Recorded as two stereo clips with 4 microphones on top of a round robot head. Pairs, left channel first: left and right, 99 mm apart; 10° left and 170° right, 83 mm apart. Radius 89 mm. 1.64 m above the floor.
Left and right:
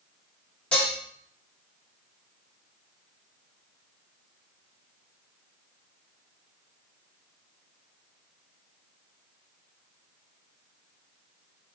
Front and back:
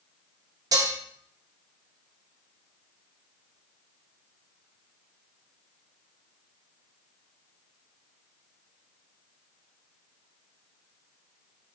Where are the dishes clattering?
170° left, 0.7 m.